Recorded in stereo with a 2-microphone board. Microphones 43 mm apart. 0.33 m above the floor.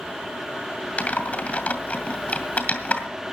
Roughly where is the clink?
No clink in this recording.